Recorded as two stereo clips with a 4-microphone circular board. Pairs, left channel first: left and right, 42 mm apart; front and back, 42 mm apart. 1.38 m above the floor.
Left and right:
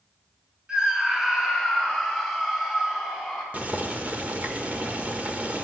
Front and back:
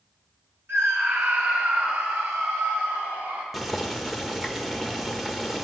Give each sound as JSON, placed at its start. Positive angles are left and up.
{"t": 0.7, "sound": "a scream", "azimuth_deg": -165, "distance_m": 2.5}
{"t": 3.5, "sound": "boiling", "azimuth_deg": -100, "distance_m": 1.2}